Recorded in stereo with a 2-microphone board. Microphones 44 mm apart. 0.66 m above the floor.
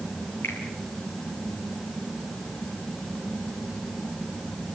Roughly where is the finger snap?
Left.